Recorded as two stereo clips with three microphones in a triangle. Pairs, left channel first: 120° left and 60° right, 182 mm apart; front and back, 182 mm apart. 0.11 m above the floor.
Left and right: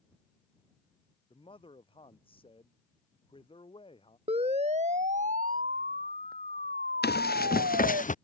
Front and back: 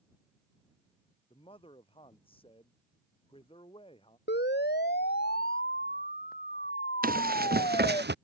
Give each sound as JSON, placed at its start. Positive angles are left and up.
{"t": 1.3, "sound": "a man speaking", "azimuth_deg": 60}
{"t": 4.3, "sound": "a siren", "azimuth_deg": -5}
{"t": 7.0, "sound": "running footsteps", "azimuth_deg": 145}